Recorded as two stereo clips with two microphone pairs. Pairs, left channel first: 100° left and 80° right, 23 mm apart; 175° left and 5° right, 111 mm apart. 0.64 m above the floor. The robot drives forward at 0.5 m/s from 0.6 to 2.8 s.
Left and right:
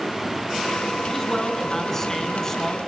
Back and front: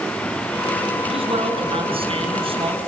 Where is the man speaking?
25° left, 5.5 m; by 2.8 s 30° left, 4.5 m.